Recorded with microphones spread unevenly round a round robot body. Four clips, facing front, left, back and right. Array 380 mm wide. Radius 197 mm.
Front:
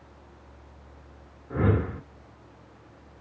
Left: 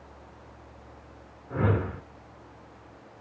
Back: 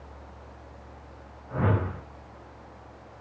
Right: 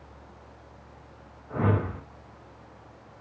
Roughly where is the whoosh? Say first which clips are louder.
Right 1 dB, front 2 dB; ahead.